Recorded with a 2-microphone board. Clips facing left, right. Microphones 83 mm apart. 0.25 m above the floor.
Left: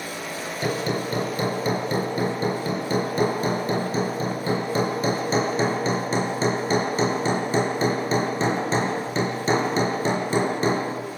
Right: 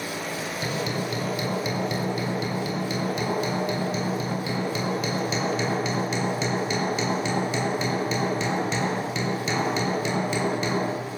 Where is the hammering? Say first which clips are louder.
Left 5 dB; 35° left (ahead or behind), 5 m.